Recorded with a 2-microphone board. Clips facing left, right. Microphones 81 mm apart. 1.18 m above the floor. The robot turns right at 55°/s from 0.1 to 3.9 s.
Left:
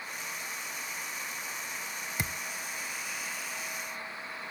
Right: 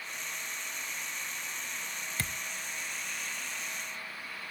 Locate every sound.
2.2 s a thud: 20° left (ahead or behind), 0.5 m; by 2.4 s 15° left (ahead or behind), 0.5 m